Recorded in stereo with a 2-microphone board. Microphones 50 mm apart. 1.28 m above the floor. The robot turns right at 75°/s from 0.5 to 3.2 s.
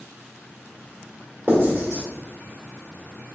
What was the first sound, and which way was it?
Writing, 50° right (ahead or behind).